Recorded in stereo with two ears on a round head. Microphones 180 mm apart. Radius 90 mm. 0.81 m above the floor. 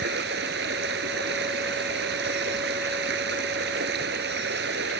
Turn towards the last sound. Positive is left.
turn(degrees=-60)  # may be behind; listen again after turning